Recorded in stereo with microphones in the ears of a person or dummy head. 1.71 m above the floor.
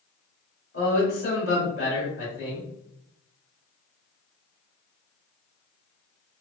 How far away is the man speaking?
About 1.7 m.